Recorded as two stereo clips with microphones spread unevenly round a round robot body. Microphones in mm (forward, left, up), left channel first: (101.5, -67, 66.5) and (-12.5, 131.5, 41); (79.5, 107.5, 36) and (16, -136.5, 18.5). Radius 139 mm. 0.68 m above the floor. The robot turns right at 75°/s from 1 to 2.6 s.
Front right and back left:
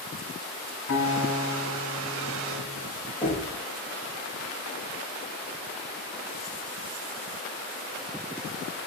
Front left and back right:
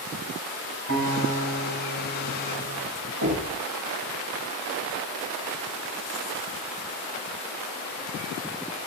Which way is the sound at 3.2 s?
130° right.